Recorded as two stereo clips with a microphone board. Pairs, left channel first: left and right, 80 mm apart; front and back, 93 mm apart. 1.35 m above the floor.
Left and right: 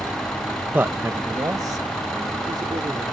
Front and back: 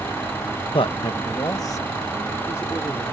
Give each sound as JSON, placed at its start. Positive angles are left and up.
{"t": 0.7, "sound": "a man speaking", "azimuth_deg": -20}